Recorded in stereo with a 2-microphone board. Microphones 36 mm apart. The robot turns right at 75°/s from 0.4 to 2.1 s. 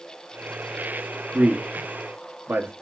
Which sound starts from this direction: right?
A man speaking, at 1.3 s.